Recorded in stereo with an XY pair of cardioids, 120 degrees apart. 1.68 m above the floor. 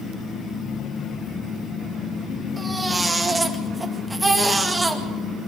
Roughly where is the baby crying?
Ahead.